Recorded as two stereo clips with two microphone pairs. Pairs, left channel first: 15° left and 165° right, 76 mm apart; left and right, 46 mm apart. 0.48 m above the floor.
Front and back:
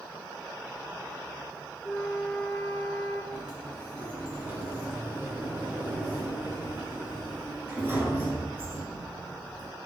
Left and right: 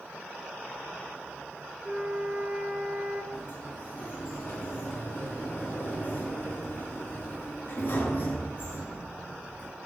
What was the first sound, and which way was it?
A flute, 70° right.